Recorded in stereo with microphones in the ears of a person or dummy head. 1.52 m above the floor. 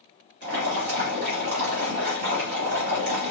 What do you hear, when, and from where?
0.4 s boiling: 35° right (ahead or behind), 1.6 m